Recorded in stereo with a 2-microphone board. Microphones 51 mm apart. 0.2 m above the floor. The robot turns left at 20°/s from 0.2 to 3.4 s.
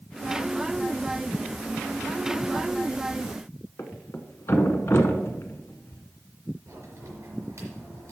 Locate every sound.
3.8 s a thud: 60° left (ahead or behind), 1.1 m
6.7 s a crack: 60° right (ahead or behind), 4 m